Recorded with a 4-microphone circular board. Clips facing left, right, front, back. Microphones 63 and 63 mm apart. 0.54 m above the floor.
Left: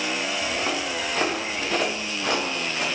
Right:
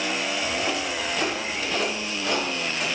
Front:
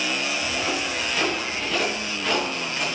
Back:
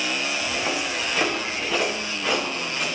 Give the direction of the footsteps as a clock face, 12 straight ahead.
8 o'clock.